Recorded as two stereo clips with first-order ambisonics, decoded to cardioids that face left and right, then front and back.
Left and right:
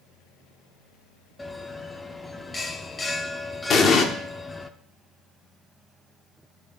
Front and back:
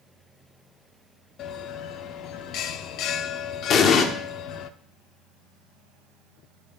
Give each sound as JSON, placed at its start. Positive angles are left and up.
{"t": 1.4, "sound": "a bell", "azimuth_deg": 15, "distance_m": 0.5}
{"t": 3.7, "sound": "an explosion", "azimuth_deg": 40, "distance_m": 1.0}